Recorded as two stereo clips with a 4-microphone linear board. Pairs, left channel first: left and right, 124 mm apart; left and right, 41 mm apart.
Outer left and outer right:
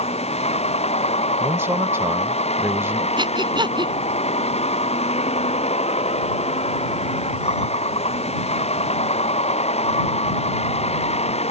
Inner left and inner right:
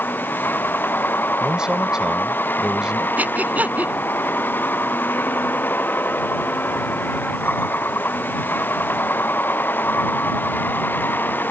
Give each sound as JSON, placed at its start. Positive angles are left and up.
{"t": 0.0, "sound": "a vehicle", "side_deg": 60}
{"t": 1.4, "sound": "a man speaking", "side_deg": -20}
{"t": 3.2, "sound": "breathing", "side_deg": -40}